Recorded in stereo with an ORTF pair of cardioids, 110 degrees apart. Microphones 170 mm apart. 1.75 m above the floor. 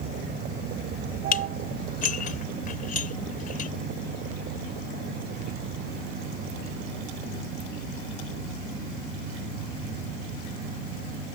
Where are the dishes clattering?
55° left.